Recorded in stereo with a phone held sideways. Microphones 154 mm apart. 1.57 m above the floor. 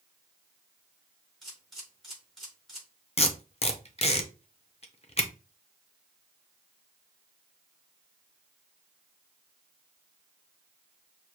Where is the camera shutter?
Centre (ahead or behind), 3.5 m.